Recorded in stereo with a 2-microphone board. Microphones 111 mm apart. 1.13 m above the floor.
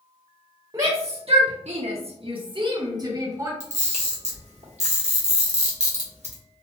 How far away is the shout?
About 0.7 m.